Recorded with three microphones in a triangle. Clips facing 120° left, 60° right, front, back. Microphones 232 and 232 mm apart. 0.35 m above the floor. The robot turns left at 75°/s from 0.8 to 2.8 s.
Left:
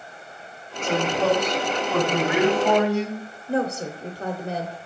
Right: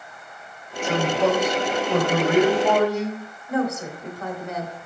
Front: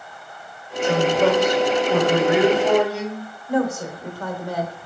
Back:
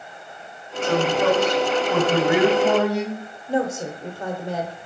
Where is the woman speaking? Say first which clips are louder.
Even, front 2 dB; 135° left, 1.3 m.